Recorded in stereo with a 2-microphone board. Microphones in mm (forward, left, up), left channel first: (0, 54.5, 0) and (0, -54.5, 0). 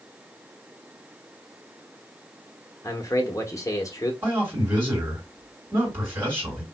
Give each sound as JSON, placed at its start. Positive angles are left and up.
{"t": 2.8, "sound": "a man speaking", "side_deg": 30, "distance_m": 0.7}
{"t": 4.2, "sound": "a man speaking", "side_deg": -20, "distance_m": 1.7}